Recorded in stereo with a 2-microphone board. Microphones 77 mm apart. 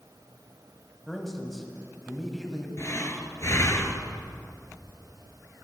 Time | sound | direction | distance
1.1 | a man speaking | centre (ahead or behind) | 1.2 m
2.8 | breathing | 40° left (ahead or behind) | 1.0 m